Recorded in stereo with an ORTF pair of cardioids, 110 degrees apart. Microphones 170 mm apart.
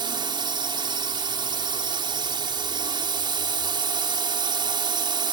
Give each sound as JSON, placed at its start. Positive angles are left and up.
{"t": 0.0, "sound": "a drone", "azimuth_deg": -25}